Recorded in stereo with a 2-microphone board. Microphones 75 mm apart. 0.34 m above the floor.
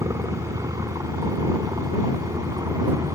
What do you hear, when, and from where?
0.0 s a helicopter: 60° right (ahead or behind); by 3.1 s 65° right (ahead or behind)